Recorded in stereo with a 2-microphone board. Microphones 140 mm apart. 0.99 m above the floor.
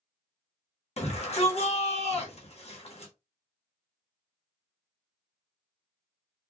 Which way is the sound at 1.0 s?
50° left (ahead or behind).